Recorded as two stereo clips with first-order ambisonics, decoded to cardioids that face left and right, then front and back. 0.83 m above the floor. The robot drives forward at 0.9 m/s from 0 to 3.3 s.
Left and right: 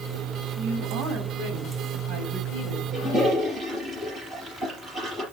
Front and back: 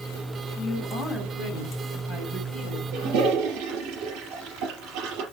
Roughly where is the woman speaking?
Right.